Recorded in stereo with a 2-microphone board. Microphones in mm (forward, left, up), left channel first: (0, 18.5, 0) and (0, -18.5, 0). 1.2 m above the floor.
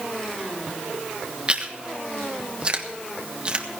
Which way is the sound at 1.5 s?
30° right (ahead or behind).